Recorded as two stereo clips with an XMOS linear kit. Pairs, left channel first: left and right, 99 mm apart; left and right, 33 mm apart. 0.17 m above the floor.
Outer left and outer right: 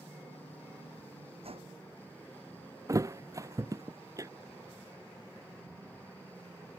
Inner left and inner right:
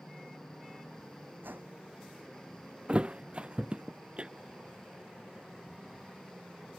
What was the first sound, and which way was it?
A whoosh, 80° right.